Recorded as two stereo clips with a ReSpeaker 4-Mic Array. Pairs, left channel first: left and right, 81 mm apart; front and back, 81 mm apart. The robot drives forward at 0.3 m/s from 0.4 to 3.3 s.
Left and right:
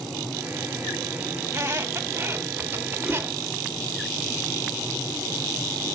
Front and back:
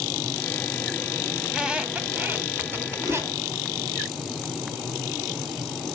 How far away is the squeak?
About 0.9 m.